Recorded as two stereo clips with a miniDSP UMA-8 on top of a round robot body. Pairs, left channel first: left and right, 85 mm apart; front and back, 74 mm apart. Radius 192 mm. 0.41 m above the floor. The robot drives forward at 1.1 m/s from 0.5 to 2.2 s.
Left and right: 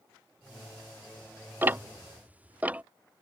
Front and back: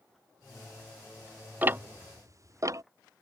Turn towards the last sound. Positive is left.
turn(degrees=-160)